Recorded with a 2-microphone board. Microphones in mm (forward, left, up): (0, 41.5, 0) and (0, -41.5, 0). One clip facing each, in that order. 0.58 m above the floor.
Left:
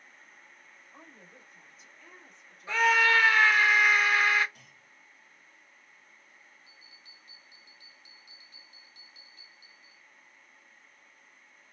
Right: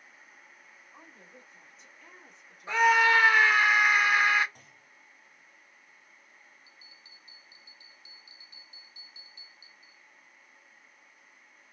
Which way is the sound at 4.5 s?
35° right (ahead or behind).